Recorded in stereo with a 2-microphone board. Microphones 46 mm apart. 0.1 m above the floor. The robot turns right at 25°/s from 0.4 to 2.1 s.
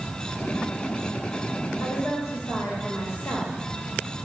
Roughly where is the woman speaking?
Left.